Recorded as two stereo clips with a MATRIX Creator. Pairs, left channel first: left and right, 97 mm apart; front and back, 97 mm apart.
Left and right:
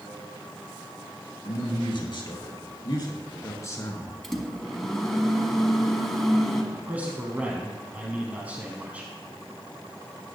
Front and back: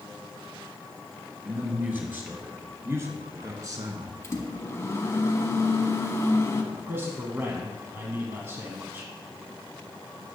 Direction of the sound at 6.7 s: 145° right.